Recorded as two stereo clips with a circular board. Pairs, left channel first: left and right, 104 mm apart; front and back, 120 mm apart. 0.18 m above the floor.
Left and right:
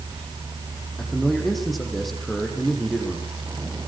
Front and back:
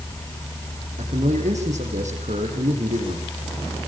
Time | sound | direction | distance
1.0 | a man speaking | straight behind | 7.5 m